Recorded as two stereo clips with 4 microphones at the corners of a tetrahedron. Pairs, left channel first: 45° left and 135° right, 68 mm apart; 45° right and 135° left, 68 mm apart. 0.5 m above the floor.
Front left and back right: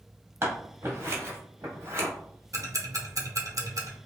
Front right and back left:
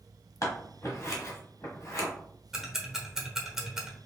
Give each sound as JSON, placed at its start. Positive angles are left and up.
{"t": 0.4, "sound": "scissors", "azimuth_deg": -85, "distance_m": 1.3}
{"t": 2.5, "sound": "ticking", "azimuth_deg": -145, "distance_m": 0.9}